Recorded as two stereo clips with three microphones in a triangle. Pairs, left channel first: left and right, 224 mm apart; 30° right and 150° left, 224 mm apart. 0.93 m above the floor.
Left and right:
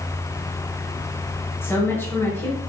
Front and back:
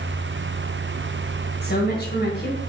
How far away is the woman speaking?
About 5 m.